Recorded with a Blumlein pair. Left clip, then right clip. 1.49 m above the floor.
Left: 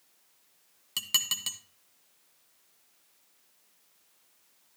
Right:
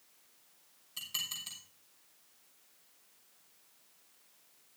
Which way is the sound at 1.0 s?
50° left.